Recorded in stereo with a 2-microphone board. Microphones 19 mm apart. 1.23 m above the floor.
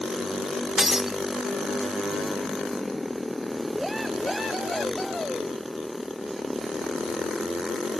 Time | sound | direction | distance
0.8 | breaking glass | 30° right (ahead or behind) | 0.9 m